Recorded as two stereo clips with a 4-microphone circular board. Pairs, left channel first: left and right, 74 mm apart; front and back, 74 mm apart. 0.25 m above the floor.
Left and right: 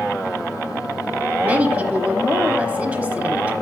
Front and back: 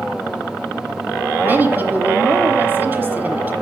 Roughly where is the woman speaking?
Behind right.